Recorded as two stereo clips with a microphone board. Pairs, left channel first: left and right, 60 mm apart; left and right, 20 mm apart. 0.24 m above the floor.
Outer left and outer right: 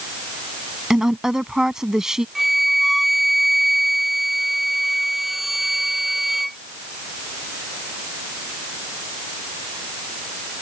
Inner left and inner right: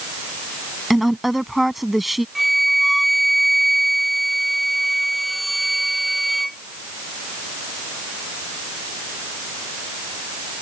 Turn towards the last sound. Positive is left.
turn(degrees=0)  # may be behind; listen again after turning